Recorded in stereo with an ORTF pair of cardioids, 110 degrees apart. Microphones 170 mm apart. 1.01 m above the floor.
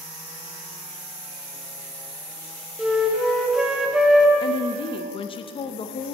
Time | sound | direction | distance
2.8 | a flute | 5° right | 0.8 m
4.4 | a woman speaking | 35° left | 0.5 m